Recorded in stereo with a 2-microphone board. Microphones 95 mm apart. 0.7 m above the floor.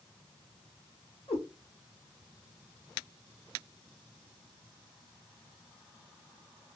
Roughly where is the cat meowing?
Left.